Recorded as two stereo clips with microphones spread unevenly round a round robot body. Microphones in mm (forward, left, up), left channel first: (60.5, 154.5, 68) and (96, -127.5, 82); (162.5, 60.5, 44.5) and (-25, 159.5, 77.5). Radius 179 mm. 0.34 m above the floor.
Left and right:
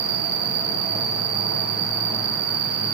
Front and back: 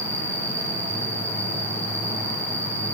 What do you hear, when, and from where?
0.0 s an insect: 120° right, 2.5 m